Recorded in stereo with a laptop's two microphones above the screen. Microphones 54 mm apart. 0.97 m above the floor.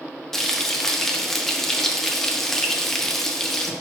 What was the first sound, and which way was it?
Frying, 5° left (ahead or behind).